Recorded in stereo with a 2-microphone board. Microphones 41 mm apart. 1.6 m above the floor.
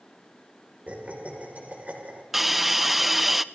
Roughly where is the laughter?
Right.